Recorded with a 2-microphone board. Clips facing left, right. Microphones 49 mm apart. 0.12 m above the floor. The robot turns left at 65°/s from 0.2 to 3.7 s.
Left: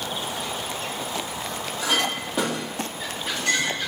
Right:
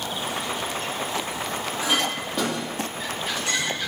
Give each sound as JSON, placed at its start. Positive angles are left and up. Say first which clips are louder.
{"t": 1.8, "sound": "a clink", "louder": "left 1 dB", "side_deg": -25, "distance_m": 3.0}